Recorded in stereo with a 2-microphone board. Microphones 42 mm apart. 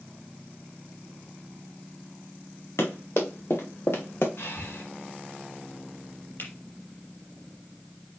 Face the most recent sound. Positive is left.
turn(degrees=60)  # may be behind; listen again after turning